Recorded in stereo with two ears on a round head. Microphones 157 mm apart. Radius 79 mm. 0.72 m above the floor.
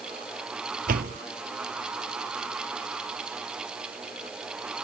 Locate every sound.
0.9 s a door slam: 50° right (ahead or behind)